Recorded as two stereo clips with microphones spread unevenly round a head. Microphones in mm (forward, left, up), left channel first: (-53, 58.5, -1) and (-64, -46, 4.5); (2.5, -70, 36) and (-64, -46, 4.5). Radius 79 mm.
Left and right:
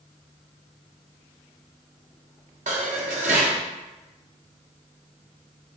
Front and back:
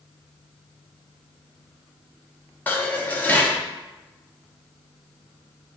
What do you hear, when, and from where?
2.7 s dishes clattering: 80° right, 0.9 m